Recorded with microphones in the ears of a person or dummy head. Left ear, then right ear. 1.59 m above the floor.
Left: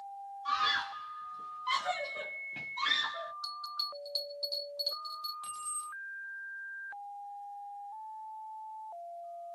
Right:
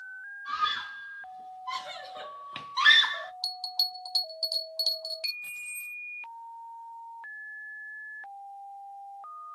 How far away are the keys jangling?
About 2 m.